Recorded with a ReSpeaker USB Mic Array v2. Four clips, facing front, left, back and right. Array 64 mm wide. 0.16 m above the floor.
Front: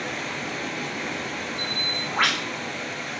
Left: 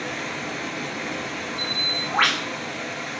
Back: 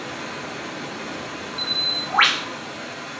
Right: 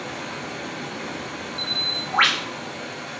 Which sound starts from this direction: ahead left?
Running water, at 0.0 s.